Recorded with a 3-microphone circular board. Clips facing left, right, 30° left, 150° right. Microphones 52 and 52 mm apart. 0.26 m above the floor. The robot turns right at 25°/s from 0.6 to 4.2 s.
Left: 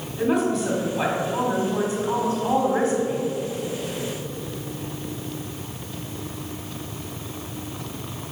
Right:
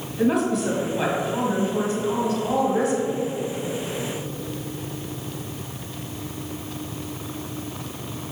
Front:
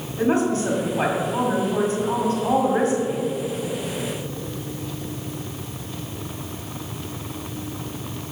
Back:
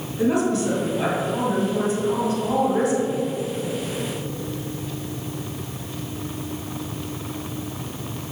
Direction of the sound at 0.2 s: Straight ahead.